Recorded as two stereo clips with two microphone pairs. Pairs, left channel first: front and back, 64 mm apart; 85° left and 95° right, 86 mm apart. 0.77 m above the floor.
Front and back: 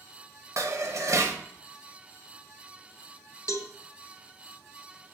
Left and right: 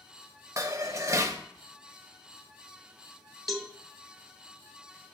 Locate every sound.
0.6 s dishes clattering: 145° right, 0.7 m
3.5 s a cowbell: 10° right, 0.9 m